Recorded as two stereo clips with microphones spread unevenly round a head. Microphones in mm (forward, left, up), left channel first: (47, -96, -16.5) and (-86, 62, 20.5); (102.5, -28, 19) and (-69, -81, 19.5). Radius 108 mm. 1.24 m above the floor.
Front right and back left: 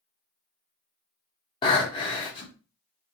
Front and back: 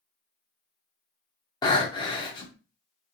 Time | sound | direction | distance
1.6 | breathing | 10° left | 0.8 m